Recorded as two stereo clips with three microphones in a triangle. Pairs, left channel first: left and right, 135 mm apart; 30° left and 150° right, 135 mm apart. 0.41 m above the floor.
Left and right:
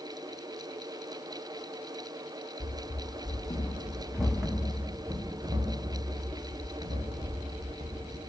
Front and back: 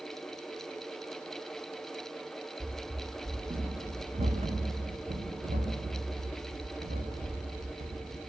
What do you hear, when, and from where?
2.6 s running footsteps: 135° left, 1.5 m; by 8.2 s 130° right, 3.5 m